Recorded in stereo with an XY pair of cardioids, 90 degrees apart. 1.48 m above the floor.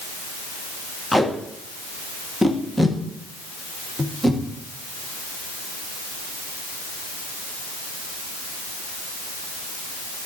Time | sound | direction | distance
1.1 | tape being pulled | 5° left | 1.8 m